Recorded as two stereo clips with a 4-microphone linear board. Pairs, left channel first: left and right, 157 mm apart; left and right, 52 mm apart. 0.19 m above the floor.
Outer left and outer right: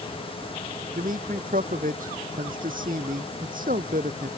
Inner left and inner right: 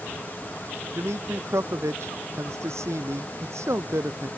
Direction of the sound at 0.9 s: 60° right (ahead or behind).